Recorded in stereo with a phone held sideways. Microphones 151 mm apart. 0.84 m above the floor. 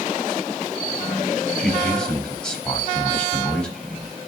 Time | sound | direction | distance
1.6 | a man speaking | 5° left (ahead or behind) | 4.5 m